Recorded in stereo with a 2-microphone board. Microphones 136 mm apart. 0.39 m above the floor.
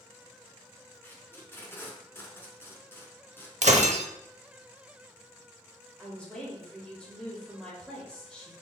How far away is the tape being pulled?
About 1.0 m.